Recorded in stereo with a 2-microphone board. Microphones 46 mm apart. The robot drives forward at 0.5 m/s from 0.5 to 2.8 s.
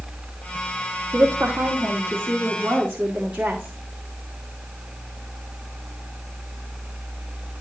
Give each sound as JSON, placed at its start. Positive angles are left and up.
{"t": 1.1, "sound": "a woman speaking", "side_deg": -55, "distance_m": 1.3}